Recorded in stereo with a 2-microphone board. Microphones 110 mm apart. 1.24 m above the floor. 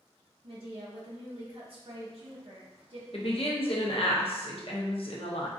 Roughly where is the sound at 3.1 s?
Left.